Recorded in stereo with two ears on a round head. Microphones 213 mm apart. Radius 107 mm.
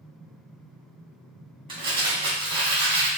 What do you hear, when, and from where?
1.7 s crumpling: 20° right (ahead or behind), 1.0 m